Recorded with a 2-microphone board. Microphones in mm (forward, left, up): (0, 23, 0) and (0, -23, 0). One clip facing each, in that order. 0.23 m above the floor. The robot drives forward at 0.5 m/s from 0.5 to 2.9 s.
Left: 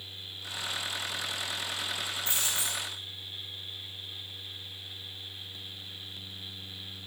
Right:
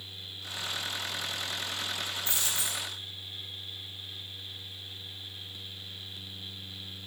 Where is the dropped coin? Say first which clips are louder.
Left 1 dB; 55° left (ahead or behind), 2 m; by 2.9 s 50° left (ahead or behind), 2.5 m.